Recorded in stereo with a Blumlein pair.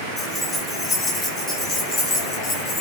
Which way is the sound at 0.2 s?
10° left.